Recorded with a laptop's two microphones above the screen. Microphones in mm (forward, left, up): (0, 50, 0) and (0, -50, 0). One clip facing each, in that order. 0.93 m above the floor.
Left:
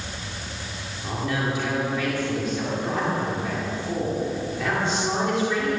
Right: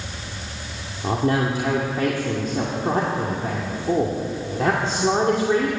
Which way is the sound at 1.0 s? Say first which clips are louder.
Right 6 dB; 40° right (ahead or behind).